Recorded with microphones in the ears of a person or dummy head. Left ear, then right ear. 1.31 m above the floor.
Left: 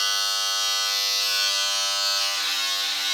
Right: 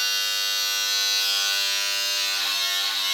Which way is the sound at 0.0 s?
10° right (ahead or behind).